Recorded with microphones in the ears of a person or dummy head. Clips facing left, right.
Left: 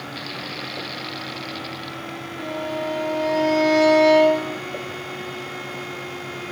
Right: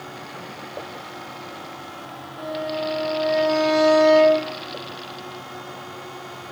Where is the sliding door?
No sliding door in this recording.